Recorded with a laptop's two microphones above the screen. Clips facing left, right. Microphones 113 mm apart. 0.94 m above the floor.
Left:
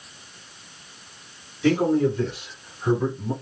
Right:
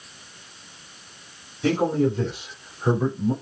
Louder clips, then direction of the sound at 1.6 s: Left 1 dB; 30° right (ahead or behind).